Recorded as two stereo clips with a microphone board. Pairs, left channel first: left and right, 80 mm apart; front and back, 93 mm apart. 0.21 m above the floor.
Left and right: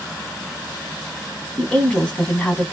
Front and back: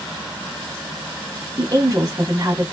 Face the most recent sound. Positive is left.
turn(degrees=160)